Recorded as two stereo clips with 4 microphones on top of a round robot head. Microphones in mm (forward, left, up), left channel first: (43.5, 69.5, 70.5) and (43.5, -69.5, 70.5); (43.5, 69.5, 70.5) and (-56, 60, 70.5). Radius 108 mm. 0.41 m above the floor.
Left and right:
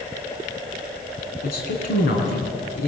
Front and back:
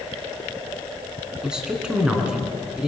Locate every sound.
1.4 s a man speaking: 105° left, 4.5 m